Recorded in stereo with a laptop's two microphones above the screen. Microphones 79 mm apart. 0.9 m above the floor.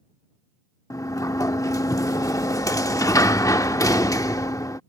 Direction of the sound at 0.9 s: 45° left (ahead or behind).